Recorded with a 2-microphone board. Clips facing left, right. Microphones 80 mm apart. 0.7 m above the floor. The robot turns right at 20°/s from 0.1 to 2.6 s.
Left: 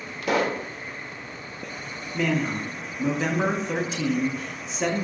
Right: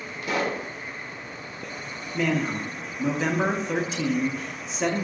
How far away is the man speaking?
About 0.6 m.